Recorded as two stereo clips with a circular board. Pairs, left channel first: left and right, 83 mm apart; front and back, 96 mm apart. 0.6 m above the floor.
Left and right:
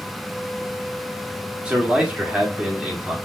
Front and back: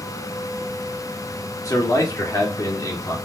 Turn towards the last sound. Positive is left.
turn(degrees=-20)